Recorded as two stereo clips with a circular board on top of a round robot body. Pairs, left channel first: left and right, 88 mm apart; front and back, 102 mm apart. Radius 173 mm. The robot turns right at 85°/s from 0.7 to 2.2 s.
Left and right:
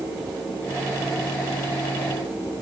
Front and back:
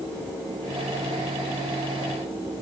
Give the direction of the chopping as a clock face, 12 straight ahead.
No chopping in this recording.